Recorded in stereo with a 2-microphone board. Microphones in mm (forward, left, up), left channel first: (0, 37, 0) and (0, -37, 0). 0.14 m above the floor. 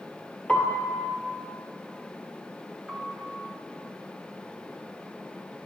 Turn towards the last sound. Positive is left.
turn(degrees=-5)  # may be behind; listen again after turning